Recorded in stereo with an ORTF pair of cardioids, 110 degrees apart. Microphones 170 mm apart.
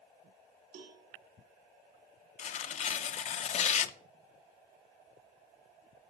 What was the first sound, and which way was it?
A cowbell, 65° right.